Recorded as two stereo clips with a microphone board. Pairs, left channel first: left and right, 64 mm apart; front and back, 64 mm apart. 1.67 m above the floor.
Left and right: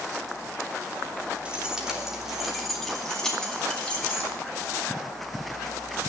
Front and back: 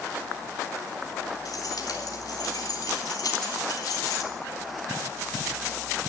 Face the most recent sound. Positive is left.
turn(degrees=20)